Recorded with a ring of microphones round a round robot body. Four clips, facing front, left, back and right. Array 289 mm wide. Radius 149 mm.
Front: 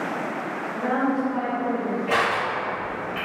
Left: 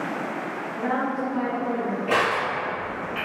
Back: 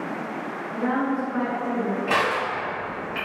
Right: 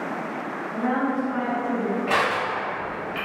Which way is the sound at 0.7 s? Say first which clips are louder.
Right 2 dB, front 1 dB; 145° right.